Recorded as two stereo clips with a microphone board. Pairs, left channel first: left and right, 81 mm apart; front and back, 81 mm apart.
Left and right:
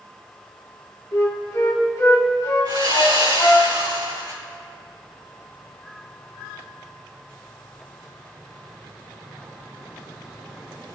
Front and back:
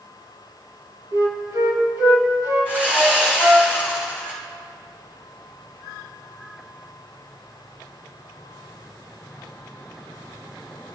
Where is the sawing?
110° right, 5.5 m.